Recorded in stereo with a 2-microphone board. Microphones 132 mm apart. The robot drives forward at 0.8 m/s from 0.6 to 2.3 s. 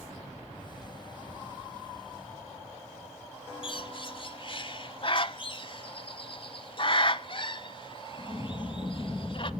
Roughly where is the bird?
Left.